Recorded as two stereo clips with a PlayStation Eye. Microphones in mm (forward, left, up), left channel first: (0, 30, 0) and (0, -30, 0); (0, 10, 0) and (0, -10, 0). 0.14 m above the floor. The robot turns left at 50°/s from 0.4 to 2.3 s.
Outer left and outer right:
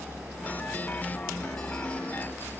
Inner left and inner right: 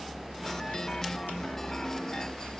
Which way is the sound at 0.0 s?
50° right (ahead or behind).